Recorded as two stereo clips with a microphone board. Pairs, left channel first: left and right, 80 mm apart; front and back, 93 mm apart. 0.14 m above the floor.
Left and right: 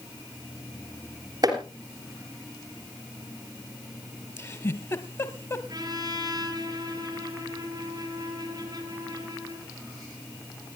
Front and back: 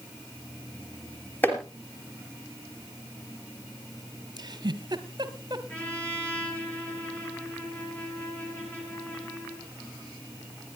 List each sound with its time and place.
1.4 s chopping: 70° right, 3.5 m
4.4 s a giggle: 140° left, 1.2 m
5.7 s a trumpet: 75° right, 3.5 m